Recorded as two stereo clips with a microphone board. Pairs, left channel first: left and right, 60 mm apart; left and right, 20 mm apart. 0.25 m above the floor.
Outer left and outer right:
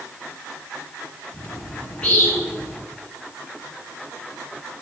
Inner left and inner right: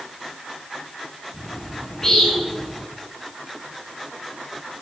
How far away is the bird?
About 3 m.